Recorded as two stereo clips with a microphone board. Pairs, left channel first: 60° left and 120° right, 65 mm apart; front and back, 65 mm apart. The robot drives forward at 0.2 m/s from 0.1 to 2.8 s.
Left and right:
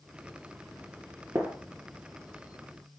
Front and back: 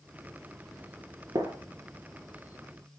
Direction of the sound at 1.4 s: 165° right.